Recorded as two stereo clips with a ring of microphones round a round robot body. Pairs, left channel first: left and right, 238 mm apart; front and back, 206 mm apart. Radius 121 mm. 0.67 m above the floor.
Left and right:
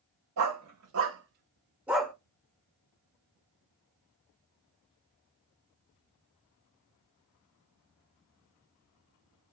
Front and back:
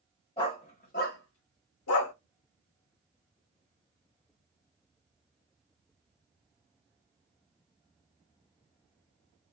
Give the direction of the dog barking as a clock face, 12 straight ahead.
2 o'clock.